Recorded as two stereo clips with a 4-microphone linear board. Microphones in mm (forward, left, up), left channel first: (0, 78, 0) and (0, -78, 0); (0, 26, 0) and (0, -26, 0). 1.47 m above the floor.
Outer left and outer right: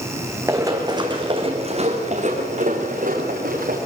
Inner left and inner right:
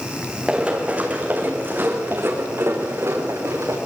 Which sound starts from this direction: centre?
Running footsteps, at 0.5 s.